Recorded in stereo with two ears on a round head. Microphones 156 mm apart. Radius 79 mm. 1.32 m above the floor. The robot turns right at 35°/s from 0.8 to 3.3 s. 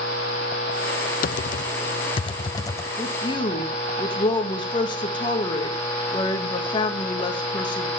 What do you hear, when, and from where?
1.2 s typing on a keyboard: 50° left (ahead or behind), 0.5 m; by 2.9 s 15° left (ahead or behind), 0.5 m
3.0 s a woman speaking: 15° left (ahead or behind), 2 m; by 7.9 s 25° left (ahead or behind), 2 m